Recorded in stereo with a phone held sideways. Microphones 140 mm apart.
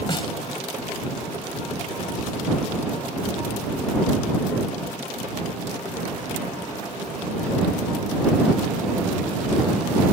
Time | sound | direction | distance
0.1 | a snare drum | 35° left (ahead or behind) | ?